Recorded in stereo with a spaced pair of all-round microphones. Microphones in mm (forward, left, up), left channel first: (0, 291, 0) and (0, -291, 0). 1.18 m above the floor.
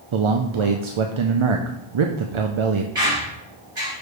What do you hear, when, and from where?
0.1 s a man speaking: 55° right (ahead or behind), 0.5 m
3.0 s a squeak: 55° right (ahead or behind), 3 m